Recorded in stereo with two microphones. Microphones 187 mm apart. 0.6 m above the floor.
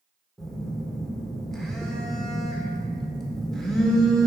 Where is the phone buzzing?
Centre (ahead or behind), 1.2 m.